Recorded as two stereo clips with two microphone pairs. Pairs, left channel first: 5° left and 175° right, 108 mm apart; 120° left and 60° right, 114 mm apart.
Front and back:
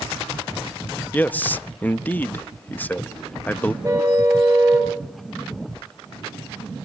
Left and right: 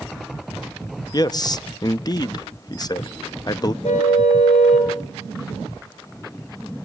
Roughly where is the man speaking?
Left.